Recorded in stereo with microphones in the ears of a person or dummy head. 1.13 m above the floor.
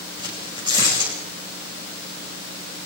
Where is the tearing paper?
25° right (ahead or behind), 6.5 m.